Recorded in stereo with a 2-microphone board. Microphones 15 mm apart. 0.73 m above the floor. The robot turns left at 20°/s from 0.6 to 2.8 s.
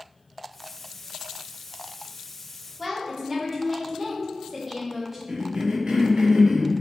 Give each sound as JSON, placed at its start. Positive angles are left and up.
{"t": 2.8, "sound": "a woman speaking", "side_deg": -15, "distance_m": 0.8}
{"t": 5.3, "sound": "a cough", "side_deg": -50, "distance_m": 0.7}